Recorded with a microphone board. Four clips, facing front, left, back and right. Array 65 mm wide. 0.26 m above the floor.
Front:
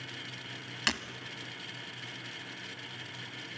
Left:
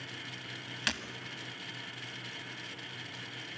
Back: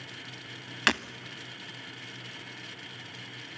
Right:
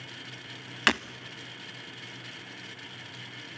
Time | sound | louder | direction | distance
0.9 | breaking glass | right 11 dB, back 7 dB | 120° right | 0.5 m